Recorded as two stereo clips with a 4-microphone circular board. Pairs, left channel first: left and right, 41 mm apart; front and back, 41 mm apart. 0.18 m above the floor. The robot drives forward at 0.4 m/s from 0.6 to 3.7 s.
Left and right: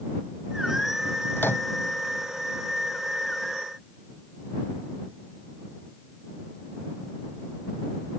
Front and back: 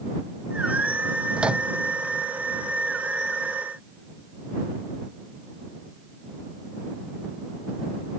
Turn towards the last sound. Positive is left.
turn(degrees=120)